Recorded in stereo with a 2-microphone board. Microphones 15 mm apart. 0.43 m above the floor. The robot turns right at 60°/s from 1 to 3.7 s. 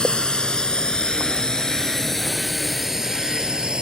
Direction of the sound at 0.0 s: 75° left (ahead or behind).